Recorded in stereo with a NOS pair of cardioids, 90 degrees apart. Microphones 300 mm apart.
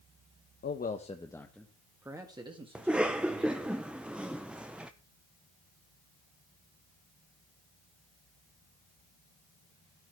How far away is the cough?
About 0.7 m.